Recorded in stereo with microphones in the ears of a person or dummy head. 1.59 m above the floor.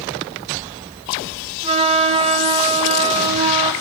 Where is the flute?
30° right (ahead or behind), 1.6 m.